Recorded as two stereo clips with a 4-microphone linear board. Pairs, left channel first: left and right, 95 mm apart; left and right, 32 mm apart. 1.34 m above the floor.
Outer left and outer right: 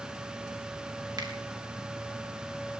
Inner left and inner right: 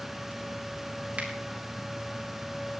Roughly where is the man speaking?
No man speaking in this recording.